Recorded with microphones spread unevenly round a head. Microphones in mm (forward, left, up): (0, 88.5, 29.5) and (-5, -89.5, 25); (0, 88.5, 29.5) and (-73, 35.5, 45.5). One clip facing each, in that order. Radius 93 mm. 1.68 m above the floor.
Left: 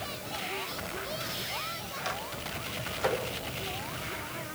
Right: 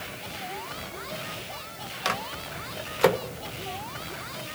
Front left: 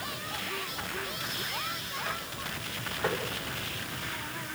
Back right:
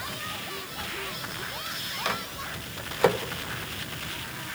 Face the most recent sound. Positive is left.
turn(degrees=-110)